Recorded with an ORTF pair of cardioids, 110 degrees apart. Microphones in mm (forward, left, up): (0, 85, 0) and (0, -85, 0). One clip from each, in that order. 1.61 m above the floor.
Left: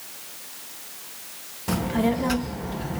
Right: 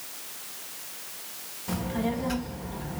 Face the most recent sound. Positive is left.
turn(degrees=40)